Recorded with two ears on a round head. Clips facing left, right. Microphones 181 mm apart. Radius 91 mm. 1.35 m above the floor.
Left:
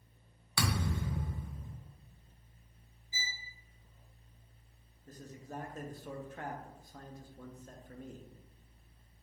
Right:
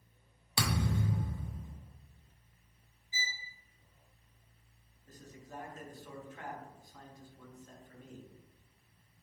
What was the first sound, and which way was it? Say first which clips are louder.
A thud: right 2 dB; 20° right (ahead or behind).